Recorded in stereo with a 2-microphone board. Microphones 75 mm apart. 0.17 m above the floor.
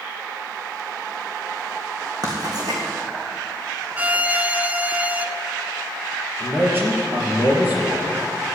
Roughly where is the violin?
Right.